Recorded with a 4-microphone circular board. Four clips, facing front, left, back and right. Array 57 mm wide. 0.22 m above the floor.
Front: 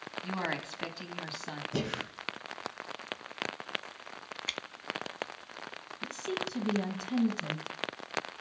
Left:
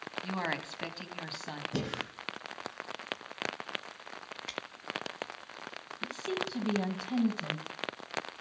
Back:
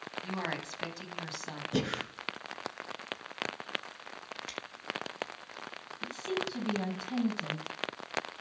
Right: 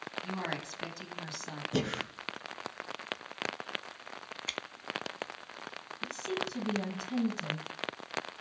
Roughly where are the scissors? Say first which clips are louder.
Right 1 dB, front 4 dB; ahead right.